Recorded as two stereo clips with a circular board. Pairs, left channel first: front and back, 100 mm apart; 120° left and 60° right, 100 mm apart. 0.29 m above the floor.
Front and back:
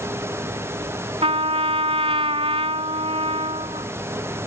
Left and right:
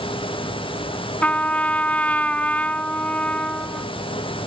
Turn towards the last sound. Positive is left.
turn(degrees=-165)